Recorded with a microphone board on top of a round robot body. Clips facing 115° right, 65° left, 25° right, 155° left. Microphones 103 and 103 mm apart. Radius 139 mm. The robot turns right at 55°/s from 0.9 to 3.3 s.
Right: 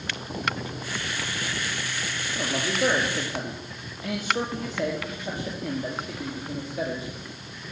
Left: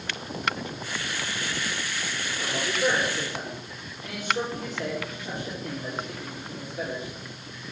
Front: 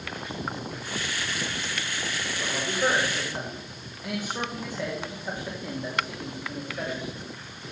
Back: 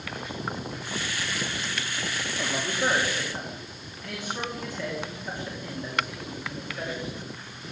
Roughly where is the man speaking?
Behind right.